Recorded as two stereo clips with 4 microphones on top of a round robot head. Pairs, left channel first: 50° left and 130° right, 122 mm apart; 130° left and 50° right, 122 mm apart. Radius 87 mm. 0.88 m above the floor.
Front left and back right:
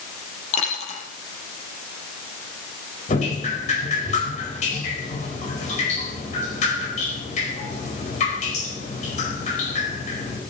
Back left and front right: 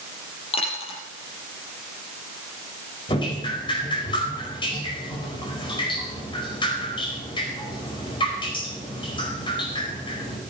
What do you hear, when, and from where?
0.5 s a dropped coin: 85° left, 4.5 m
3.1 s dripping: 80° left, 4.5 m